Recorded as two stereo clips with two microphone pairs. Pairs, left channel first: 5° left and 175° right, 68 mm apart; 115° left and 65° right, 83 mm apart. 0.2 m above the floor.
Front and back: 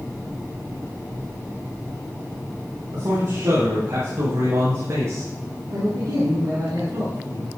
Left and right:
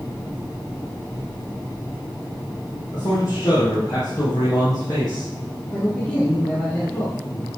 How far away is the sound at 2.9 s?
About 6.5 m.